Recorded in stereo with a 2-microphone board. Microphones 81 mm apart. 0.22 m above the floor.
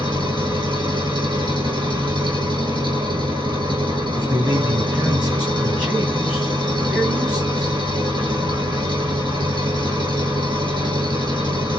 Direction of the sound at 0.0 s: 65° right (ahead or behind).